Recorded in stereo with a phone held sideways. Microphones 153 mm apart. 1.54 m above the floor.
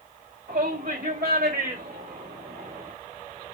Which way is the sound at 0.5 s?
80° right.